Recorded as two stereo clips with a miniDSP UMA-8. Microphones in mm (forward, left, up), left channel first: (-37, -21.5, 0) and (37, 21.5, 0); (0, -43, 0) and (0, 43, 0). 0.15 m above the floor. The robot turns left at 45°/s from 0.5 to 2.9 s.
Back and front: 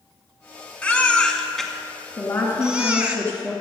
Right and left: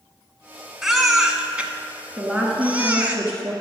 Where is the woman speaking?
Straight behind, 1.4 m; by 3.5 s 145° left, 1.4 m.